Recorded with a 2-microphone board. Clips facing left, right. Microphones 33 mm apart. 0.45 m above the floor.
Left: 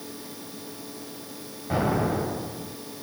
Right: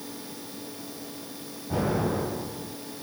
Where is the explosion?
50° left (ahead or behind), 1.6 m.